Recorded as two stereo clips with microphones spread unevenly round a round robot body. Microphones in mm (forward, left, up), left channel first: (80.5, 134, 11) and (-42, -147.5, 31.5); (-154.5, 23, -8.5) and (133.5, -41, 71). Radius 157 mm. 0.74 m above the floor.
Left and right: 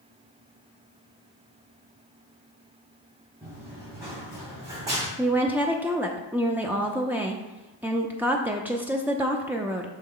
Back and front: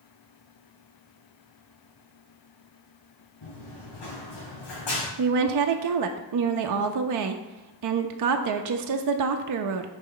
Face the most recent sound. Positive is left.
turn(degrees=-25)